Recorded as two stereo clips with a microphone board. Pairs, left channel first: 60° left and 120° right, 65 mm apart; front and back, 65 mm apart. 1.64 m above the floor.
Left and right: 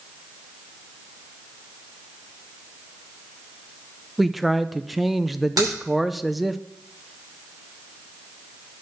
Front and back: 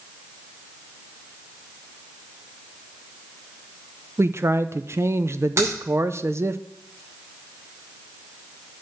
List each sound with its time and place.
4.2 s a man speaking: 150° left, 0.6 m
5.6 s a crack: 135° right, 6 m